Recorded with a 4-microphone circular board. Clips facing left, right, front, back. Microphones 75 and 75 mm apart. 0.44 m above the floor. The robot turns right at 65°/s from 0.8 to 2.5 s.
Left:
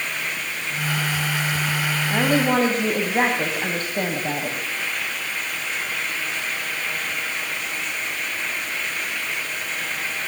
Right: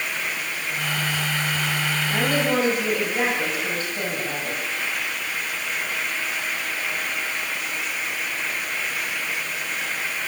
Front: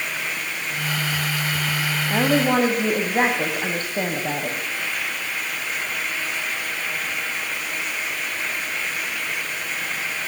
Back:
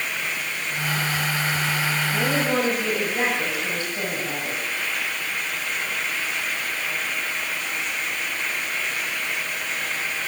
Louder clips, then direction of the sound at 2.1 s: Left 3 dB, front 6 dB; 20° left.